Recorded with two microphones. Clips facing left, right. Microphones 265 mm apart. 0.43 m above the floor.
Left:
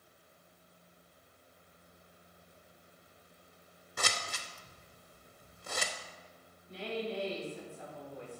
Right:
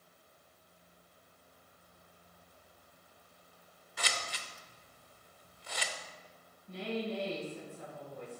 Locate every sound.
4.0 s scissors: 55° left (ahead or behind), 0.6 m
6.7 s a woman speaking: 55° right (ahead or behind), 3 m